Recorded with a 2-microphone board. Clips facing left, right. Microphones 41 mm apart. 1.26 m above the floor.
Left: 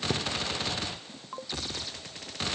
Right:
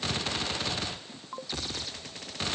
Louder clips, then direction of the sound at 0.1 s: Left 2 dB; 60° left (ahead or behind).